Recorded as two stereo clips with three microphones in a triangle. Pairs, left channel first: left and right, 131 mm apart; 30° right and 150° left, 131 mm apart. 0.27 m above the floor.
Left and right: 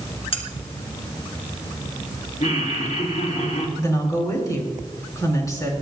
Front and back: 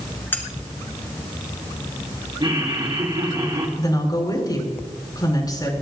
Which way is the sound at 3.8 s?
25° left.